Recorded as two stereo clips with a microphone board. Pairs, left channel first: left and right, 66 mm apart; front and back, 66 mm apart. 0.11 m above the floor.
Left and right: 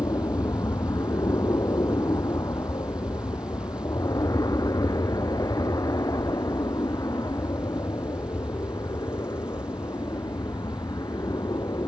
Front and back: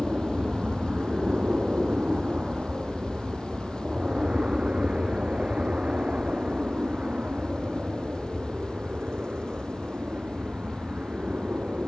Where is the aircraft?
105° left.